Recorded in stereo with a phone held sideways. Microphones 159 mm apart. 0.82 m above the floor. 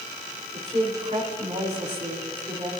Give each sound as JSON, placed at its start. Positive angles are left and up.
{"t": 0.5, "sound": "a woman speaking", "side_deg": -45, "distance_m": 2.5}